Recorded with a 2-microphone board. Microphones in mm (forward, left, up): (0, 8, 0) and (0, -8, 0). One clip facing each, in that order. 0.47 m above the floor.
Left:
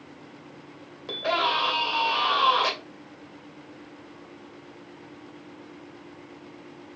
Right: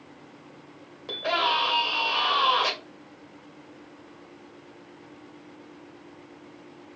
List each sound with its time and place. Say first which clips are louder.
1.1 s a scream: even; 5° left (ahead or behind), 1.2 m